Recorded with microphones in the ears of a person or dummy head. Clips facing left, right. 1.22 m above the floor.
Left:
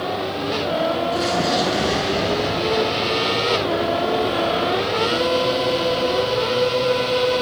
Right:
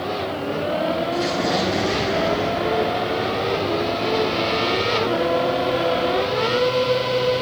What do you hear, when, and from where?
1.1 s an explosion: 5° left (ahead or behind), 8 m